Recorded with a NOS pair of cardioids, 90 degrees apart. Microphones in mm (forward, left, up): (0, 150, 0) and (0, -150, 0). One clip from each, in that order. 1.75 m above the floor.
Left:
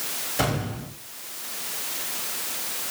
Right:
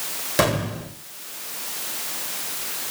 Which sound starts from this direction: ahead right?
An explosion, at 0.4 s.